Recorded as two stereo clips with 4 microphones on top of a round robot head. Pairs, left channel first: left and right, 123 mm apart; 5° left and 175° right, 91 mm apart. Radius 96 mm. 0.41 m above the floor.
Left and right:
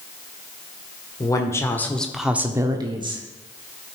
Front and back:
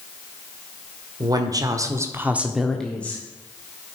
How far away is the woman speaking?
About 1.5 m.